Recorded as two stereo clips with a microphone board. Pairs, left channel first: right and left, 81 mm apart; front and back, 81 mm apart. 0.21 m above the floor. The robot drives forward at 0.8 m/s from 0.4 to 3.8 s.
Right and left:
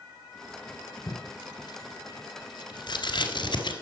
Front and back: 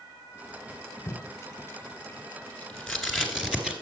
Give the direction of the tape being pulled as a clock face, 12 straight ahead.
2 o'clock.